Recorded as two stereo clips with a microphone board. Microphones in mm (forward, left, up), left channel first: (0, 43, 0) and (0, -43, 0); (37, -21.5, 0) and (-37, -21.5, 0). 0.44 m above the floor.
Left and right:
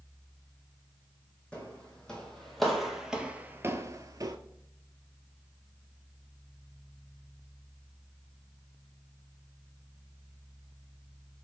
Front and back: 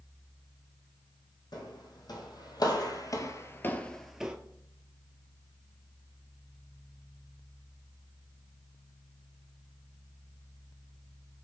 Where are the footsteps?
10° left, 1.3 m; by 4.4 s 110° right, 0.5 m.